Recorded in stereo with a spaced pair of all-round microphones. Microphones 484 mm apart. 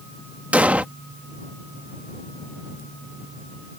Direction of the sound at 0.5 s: 5° right (ahead or behind).